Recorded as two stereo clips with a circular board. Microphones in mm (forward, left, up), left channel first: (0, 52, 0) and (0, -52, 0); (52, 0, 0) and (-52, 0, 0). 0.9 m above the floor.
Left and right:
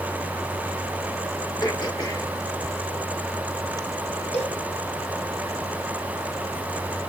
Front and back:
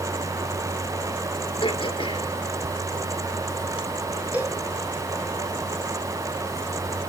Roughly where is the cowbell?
Left.